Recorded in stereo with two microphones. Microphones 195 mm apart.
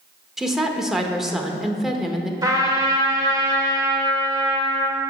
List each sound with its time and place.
0.4 s a woman speaking: centre (ahead or behind), 0.8 m
2.4 s a trumpet: 20° right (ahead or behind), 1.4 m